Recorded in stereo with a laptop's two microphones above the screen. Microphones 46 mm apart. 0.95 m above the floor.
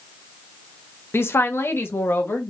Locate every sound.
1.1 s a woman speaking: 55° left (ahead or behind), 0.7 m; by 2.5 s 50° left (ahead or behind), 1.4 m